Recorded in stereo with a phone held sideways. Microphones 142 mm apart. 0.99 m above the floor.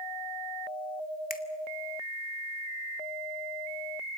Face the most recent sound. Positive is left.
turn(degrees=85)